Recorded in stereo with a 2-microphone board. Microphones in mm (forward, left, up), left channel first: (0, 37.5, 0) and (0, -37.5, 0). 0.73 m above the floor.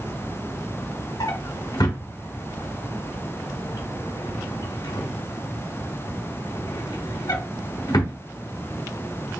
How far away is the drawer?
About 1.2 m.